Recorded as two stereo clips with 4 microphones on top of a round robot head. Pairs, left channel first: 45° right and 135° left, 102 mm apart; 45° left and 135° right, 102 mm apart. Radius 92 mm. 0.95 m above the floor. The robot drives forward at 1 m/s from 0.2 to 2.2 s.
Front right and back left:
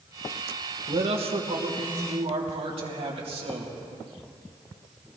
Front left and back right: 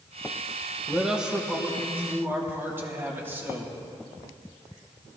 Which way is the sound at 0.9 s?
135° left.